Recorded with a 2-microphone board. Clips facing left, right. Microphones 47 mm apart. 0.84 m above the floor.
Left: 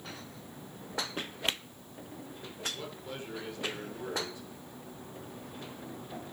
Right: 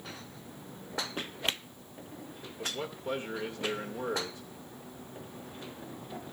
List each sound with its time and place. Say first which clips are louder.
2.6 s a man speaking: right 4 dB; 35° right (ahead or behind), 2 m